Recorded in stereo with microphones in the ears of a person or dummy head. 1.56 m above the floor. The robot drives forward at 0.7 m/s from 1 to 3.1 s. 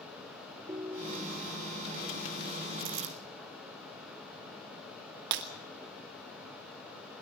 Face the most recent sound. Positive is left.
turn(degrees=-55)  # may be behind; listen again after turning